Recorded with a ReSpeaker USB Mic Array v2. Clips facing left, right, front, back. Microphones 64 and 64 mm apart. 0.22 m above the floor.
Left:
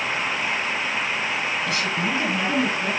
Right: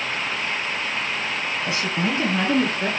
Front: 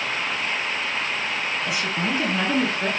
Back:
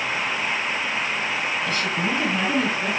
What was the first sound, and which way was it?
A woman speaking, 70° right.